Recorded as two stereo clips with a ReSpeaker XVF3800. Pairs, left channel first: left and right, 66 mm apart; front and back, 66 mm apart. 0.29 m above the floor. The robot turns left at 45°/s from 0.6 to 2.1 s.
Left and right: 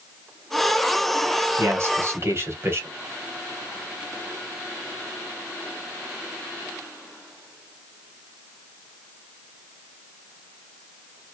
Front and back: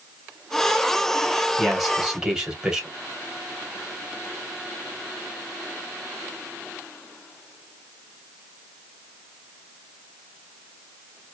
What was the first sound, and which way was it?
A man speaking, 80° right.